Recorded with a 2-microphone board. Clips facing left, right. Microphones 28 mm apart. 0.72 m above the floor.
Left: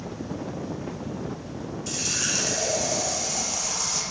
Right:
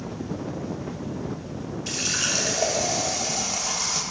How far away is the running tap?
About 1.0 m.